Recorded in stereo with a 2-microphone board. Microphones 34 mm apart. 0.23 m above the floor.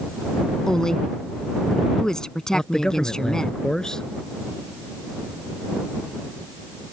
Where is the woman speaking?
20° left (ahead or behind).